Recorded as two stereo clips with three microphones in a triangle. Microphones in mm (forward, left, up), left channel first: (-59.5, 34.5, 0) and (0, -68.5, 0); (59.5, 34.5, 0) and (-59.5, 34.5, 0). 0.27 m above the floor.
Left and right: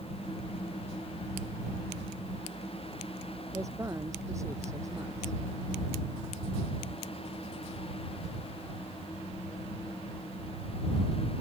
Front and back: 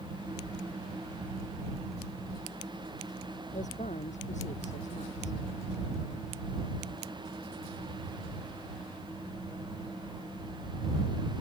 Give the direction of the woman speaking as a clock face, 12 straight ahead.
12 o'clock.